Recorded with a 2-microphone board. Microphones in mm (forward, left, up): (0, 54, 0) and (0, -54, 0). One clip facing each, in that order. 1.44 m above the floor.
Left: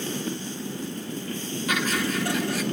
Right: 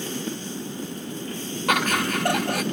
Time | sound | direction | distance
1.7 | laughter | 60° right (ahead or behind) | 1.1 m